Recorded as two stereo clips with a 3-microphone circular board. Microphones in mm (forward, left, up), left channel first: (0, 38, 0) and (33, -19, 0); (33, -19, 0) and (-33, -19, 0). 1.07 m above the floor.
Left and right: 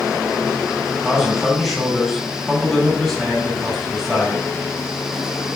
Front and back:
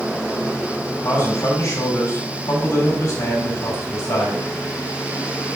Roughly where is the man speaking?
Ahead left.